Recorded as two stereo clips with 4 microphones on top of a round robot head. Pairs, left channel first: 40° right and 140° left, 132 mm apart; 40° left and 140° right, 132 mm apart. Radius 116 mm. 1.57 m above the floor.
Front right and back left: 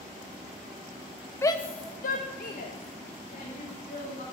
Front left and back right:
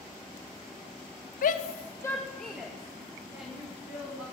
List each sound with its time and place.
1.4 s a shout: 30° left, 0.7 m; by 4.2 s 70° right, 3.5 m